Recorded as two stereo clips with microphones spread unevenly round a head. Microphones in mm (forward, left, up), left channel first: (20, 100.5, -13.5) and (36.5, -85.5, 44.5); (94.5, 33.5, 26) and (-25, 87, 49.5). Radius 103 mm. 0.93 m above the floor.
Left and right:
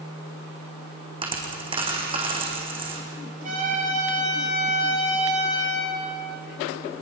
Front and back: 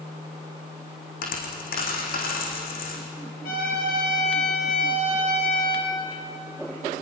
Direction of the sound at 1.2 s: 25° right.